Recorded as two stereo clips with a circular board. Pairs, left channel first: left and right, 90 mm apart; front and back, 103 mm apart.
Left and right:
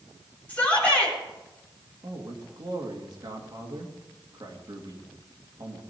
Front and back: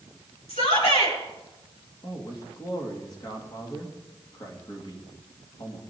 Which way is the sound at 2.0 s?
50° right.